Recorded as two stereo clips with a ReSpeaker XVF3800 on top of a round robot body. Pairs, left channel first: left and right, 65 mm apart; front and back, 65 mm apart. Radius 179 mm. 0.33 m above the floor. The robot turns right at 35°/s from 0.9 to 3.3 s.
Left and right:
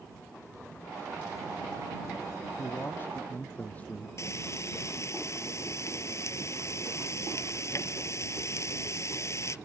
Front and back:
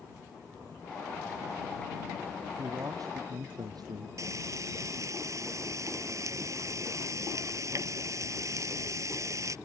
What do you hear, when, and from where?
2.6 s a man speaking: 135° left; by 4.1 s 160° left
4.2 s frying: 135° left